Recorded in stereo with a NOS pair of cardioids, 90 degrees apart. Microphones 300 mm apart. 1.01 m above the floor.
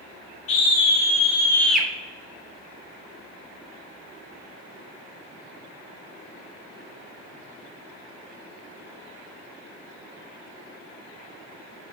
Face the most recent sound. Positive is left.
turn(degrees=-5)